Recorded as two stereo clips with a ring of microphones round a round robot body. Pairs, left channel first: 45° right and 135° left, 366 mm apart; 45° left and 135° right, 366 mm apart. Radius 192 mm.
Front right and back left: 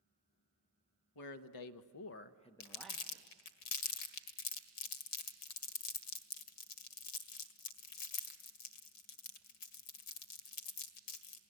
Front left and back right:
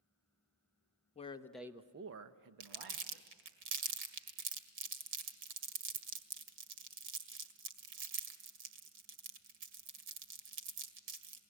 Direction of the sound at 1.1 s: 25° right.